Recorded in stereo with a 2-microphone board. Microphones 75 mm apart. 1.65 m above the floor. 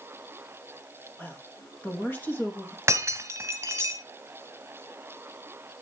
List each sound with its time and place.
1.2 s a woman speaking: 25° left (ahead or behind), 2.5 m
2.9 s breaking glass: 35° right (ahead or behind), 1.9 m